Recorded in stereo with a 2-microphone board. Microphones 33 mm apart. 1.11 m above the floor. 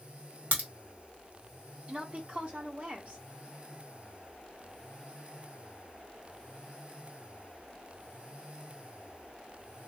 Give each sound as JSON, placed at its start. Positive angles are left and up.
{"t": 0.5, "sound": "a crack", "side_deg": -60, "distance_m": 1.7}
{"t": 1.9, "sound": "a woman speaking", "side_deg": -35, "distance_m": 1.3}